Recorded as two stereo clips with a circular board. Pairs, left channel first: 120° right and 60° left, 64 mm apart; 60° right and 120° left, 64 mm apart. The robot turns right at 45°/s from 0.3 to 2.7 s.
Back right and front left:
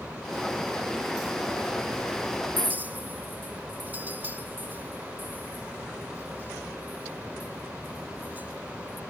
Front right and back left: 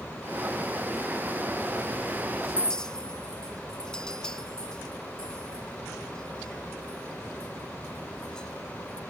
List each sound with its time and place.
2.6 s a clink: 5° left, 1.2 m; by 9.0 s 10° left, 1.2 m